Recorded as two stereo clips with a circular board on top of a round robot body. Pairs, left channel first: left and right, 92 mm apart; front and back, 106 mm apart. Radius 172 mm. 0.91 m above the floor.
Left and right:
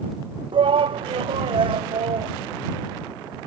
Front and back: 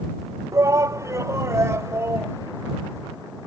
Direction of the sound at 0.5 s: 120° right.